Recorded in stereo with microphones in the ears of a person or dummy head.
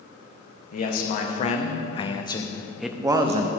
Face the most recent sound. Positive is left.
turn(degrees=-35)  # may be behind; listen again after turning